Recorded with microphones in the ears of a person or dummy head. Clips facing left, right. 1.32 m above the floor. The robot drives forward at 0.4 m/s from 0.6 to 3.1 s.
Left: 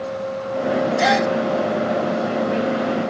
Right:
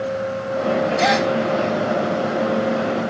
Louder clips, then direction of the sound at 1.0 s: Even; 5° left (ahead or behind).